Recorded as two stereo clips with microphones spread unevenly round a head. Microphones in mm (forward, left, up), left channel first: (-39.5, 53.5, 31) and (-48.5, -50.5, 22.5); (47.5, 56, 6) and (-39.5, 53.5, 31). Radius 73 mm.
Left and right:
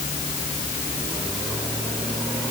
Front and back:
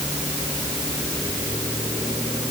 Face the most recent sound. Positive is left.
No sound to turn to.